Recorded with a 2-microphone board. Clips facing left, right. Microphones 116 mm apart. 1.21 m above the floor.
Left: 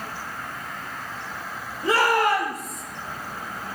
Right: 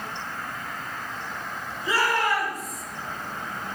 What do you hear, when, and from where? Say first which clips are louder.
1.8 s a shout: left 4 dB; 70° left (ahead or behind), 4.5 m; by 2.8 s 85° left, 5 m